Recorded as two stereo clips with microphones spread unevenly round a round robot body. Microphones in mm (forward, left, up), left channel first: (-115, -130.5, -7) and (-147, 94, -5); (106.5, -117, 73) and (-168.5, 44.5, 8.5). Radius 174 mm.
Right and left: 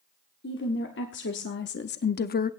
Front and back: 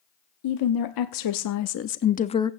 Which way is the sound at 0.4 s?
30° right.